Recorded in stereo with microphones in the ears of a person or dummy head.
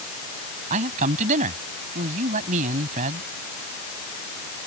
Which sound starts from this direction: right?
A man speaking, at 0.7 s.